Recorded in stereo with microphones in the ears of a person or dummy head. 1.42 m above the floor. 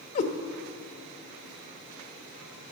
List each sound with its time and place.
0.1 s a cat meowing: 45° left (ahead or behind), 1.1 m